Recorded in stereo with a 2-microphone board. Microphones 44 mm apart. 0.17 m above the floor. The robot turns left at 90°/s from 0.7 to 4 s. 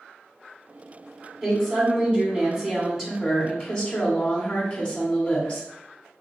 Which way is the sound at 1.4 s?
5° right (ahead or behind).